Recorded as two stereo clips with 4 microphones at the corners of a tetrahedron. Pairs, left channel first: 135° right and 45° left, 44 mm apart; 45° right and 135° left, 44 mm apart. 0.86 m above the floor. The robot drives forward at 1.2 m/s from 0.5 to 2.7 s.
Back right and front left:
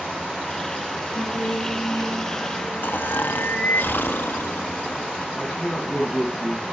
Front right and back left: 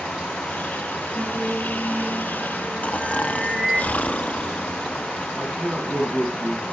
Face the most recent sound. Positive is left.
turn(degrees=175)